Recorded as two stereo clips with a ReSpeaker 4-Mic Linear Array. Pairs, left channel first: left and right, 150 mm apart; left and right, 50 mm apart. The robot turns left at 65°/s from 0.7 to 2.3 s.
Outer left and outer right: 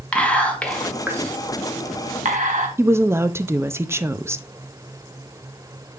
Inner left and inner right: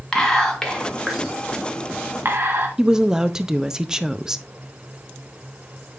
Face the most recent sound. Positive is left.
turn(degrees=-15)  # may be behind; listen again after turning